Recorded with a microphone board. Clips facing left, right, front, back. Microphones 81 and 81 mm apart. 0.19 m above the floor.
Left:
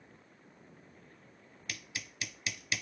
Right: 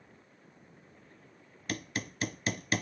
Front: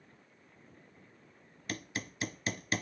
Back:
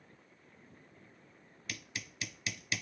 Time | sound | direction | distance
1.7 | hammering | 45° right | ?